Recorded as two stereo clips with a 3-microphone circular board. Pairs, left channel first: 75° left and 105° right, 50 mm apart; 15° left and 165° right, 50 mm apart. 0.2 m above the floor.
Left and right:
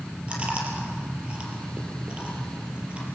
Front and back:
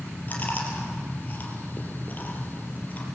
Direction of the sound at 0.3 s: 40° right.